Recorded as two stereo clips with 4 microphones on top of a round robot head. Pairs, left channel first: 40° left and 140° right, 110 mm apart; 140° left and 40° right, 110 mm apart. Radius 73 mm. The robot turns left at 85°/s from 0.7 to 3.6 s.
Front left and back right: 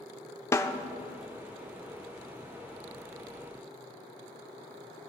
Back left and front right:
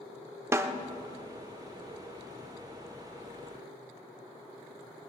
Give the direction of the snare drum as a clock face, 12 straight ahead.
12 o'clock.